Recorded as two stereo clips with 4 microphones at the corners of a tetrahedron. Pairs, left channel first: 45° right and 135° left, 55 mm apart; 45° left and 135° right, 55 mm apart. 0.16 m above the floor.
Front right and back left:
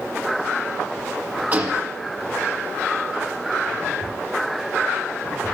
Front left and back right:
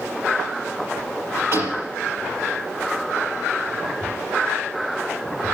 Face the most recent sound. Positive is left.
turn(degrees=-165)